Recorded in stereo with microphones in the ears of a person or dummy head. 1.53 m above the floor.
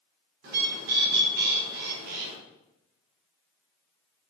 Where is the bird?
60° right (ahead or behind), 0.5 m.